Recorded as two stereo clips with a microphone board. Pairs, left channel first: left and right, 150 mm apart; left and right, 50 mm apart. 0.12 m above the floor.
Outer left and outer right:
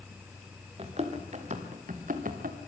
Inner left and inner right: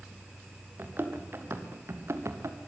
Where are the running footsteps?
45° right (ahead or behind), 3.5 m; by 2.6 s 70° right (ahead or behind), 2.5 m.